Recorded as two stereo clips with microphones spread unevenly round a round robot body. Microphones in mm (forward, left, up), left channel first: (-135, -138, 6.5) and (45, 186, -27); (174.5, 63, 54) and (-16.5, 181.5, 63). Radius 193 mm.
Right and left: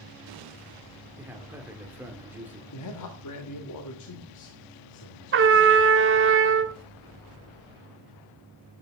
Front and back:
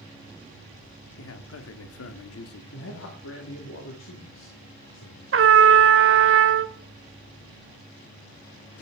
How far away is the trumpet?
About 1.3 m.